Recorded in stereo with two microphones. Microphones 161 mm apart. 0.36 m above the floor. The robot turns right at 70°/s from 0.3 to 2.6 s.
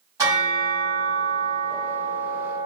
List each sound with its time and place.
0.2 s a bell: 160° right, 1.9 m; by 2.7 s straight ahead, 1.9 m